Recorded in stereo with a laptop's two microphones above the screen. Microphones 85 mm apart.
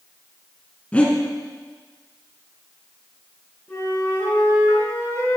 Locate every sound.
0.9 s breathing: 15° left (ahead or behind), 2.0 m
3.7 s a flute: 30° left (ahead or behind), 4 m